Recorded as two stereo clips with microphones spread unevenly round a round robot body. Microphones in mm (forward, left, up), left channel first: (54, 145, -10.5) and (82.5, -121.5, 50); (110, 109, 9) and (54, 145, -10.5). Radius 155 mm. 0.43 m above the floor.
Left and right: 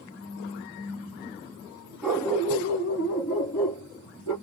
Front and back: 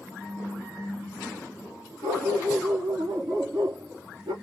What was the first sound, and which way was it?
A dog barking, 170° right.